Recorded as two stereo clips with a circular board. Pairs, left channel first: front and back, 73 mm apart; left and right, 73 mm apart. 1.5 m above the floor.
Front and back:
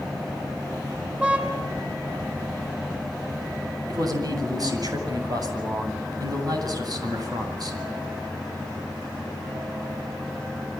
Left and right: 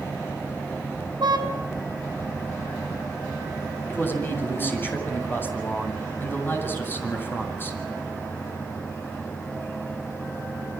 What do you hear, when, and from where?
1.2 s a car horn: 110° right, 7.5 m
3.9 s a man speaking: 150° left, 8 m